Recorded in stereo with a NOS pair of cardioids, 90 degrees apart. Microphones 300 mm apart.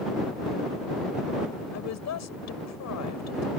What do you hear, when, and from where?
1.7 s a woman speaking: 65° left